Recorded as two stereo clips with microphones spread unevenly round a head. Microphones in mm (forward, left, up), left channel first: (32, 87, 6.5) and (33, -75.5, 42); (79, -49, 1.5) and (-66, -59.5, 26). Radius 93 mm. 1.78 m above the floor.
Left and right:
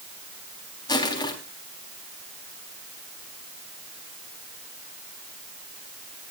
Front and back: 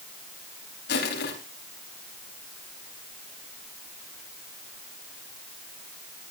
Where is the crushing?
25° left, 4.5 m.